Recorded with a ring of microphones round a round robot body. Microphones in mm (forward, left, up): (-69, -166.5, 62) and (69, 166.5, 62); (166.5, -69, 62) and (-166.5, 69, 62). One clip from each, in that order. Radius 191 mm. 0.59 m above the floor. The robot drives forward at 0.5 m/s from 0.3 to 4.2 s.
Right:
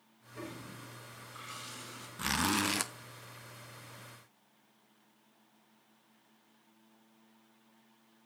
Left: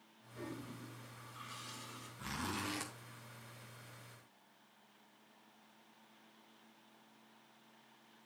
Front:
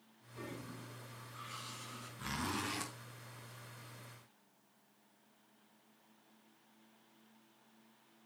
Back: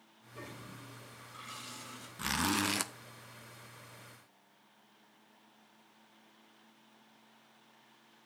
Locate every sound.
0.3 s a toilet flushing: 175° right, 3 m
2.2 s a zipper: 155° right, 0.6 m; by 2.9 s 165° right, 0.9 m